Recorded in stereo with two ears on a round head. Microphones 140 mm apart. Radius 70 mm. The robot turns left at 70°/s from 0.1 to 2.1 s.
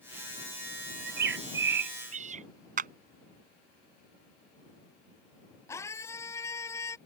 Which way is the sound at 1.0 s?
50° right.